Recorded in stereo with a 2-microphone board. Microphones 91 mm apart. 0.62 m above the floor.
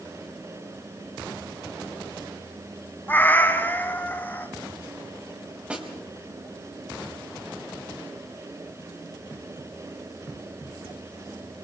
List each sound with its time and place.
3.1 s a cat meowing: 20° left (ahead or behind), 1.5 m
5.7 s a snare drum: 15° right (ahead or behind), 4.5 m